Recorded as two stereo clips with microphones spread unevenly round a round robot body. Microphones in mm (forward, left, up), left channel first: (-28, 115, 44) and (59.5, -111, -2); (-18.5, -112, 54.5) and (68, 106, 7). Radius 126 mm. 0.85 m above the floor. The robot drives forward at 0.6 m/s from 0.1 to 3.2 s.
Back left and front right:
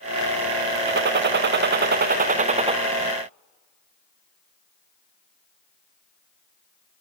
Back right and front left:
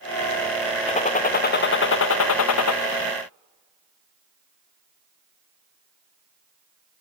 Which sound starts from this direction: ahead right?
A gunshot, at 0.9 s.